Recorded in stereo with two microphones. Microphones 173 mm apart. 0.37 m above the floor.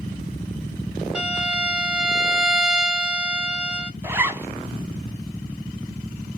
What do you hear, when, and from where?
1.1 s a violin: 5° right (ahead or behind), 0.6 m
4.0 s a zipper: 15° right (ahead or behind), 0.6 m